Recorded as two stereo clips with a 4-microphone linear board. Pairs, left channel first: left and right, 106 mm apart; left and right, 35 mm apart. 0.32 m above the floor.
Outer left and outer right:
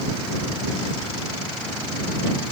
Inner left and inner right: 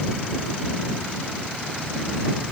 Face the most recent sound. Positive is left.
No sound to turn to.